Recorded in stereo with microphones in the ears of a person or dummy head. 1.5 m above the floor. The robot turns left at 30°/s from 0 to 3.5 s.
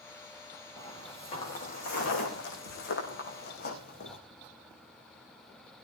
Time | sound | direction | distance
0.8 | footsteps | 20° left (ahead or behind) | 7 m